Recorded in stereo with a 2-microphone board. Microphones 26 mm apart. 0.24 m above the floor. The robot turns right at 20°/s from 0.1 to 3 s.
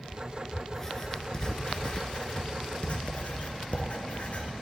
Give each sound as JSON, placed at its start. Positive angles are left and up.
{"t": 0.7, "sound": "writing", "side_deg": 15, "distance_m": 1.0}